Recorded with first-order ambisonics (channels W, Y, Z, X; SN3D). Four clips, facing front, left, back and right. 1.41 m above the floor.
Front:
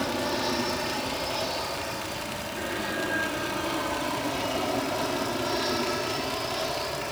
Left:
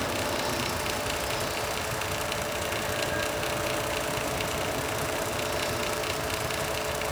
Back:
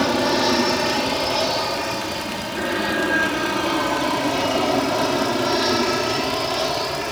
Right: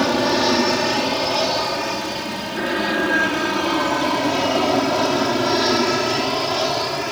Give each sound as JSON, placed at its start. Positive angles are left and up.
{"t": 0.0, "sound": "an aircraft", "azimuth_deg": -130}